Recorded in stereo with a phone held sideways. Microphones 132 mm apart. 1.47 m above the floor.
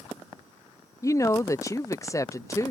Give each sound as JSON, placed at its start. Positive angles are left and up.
{"t": 1.0, "sound": "a woman speaking", "side_deg": 25}